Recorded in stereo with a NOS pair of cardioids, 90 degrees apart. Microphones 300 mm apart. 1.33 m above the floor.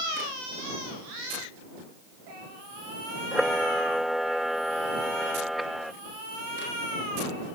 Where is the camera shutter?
Straight ahead.